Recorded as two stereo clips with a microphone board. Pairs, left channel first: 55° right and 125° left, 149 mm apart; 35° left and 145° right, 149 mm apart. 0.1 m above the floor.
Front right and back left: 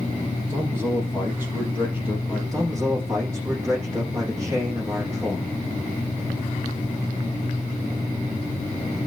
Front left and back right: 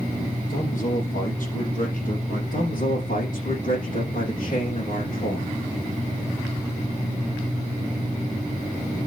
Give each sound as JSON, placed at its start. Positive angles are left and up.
{"t": 0.5, "sound": "a man speaking", "azimuth_deg": 50, "distance_m": 4.0}
{"t": 2.5, "sound": "a man speaking", "azimuth_deg": 55, "distance_m": 6.5}